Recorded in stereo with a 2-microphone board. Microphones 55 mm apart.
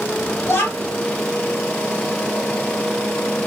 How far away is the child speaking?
About 1.4 m.